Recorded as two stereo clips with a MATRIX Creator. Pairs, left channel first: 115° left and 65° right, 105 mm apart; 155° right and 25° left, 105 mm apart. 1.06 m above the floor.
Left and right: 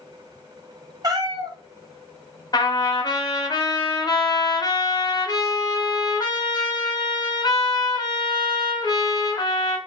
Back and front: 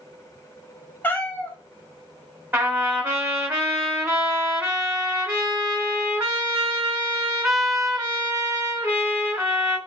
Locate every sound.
1.0 s a cat meowing: 95° right, 0.5 m
2.5 s a trumpet: 80° left, 1.0 m